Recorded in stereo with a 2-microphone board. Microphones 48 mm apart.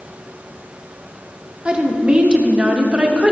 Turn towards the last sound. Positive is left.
turn(degrees=-20)  # may be behind; listen again after turning